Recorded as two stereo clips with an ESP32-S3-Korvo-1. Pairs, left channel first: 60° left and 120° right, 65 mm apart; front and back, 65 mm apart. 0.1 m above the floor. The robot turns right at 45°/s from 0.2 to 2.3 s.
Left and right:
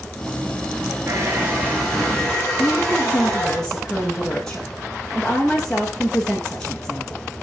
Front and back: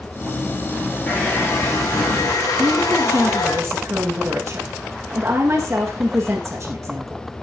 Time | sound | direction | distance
1.1 | a hair dryer | 75° right | 8 m
2.6 | a woman speaking | 140° left | 5 m